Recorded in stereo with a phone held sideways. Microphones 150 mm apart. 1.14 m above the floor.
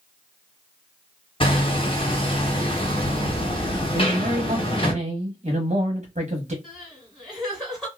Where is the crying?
5° right (ahead or behind), 1.8 m.